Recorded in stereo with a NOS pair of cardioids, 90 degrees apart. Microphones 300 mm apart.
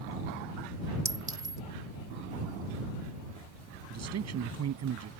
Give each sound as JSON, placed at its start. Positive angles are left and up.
{"t": 1.1, "sound": "a clink", "azimuth_deg": -15}
{"t": 3.9, "sound": "a man speaking", "azimuth_deg": -60}